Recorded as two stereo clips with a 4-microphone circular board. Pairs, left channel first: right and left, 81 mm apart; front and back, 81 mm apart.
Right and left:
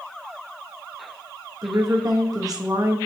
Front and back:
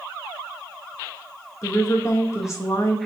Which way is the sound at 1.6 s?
50° left.